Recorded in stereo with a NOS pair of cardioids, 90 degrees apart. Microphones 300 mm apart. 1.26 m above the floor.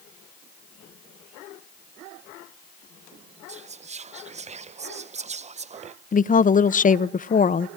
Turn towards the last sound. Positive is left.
turn(degrees=25)